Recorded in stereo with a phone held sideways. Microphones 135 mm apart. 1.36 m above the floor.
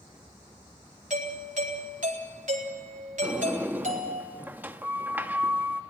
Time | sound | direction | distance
1.1 | a doorbell | 65° right (ahead or behind) | 4 m
3.2 | a sliding door | 15° right (ahead or behind) | 1.1 m